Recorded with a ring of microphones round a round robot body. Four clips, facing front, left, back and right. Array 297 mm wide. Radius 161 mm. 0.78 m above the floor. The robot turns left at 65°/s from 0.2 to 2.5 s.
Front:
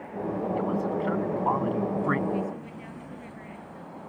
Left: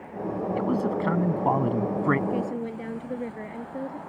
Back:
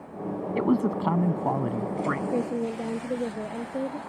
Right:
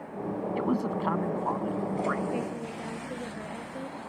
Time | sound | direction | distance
0.6 | a man speaking | 175° right | ?
2.3 | a woman speaking | 165° left | ?